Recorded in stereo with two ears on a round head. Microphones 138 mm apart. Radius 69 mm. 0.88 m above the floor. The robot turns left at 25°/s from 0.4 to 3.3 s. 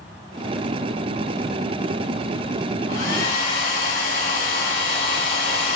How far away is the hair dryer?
About 8 m.